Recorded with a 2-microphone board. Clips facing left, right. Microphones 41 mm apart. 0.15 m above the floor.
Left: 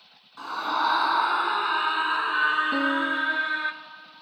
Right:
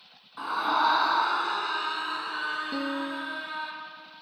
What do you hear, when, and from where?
0.4 s a scream: 15° right (ahead or behind), 1.2 m; by 3.7 s 55° left (ahead or behind), 2 m
2.7 s a piano: 20° left (ahead or behind), 1.1 m